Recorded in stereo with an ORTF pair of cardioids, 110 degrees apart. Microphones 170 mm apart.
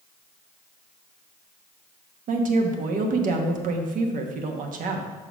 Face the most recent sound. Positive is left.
turn(degrees=-55)